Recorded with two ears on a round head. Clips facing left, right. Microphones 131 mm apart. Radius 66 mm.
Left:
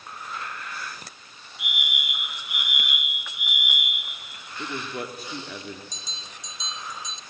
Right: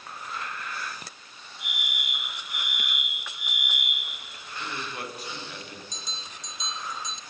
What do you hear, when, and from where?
1.6 s a fire alarm: 15° left (ahead or behind), 9 m
4.6 s a man speaking: 80° left, 3 m
5.9 s a bell: 45° right (ahead or behind), 1.2 m